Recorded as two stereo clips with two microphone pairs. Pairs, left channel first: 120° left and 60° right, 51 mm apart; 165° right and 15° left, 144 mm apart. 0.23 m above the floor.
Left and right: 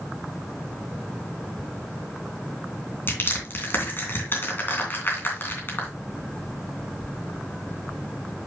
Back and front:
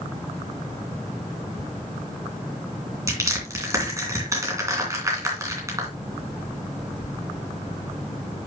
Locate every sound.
3.1 s crushing: 80° left, 3 m